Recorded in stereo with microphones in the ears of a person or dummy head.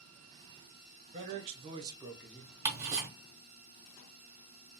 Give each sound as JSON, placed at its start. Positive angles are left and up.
{"t": 1.1, "sound": "a man speaking", "side_deg": -35, "distance_m": 0.9}
{"t": 2.6, "sound": "ticking", "side_deg": -20, "distance_m": 1.3}